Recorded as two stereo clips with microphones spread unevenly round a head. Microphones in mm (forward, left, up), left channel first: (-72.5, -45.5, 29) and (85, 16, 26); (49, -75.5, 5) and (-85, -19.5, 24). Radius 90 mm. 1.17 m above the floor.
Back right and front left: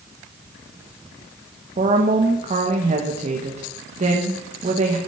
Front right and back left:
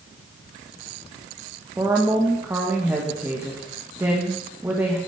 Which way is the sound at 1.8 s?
75° left.